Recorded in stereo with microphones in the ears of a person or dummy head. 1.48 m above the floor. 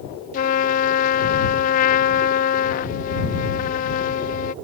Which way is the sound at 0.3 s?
45° left (ahead or behind).